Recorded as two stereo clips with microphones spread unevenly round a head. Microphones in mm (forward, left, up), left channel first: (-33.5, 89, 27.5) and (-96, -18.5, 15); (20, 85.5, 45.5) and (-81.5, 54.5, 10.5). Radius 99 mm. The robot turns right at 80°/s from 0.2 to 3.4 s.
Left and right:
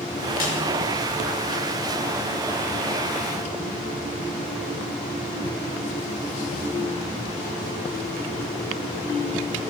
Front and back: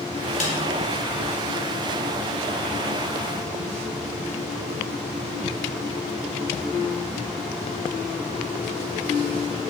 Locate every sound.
0.4 s a snare drum: 30° left, 2 m; by 0.6 s 50° left, 2 m